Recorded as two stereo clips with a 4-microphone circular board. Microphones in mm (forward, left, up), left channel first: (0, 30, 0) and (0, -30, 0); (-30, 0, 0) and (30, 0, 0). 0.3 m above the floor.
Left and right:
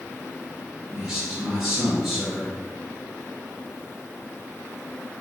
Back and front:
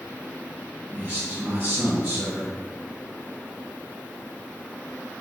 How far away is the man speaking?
About 1.6 m.